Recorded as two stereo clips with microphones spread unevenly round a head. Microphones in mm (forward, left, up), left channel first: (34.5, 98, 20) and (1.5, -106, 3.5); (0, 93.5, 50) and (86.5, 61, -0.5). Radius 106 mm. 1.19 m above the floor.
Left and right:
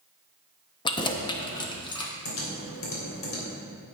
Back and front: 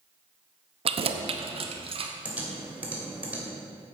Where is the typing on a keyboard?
60° left, 3 m.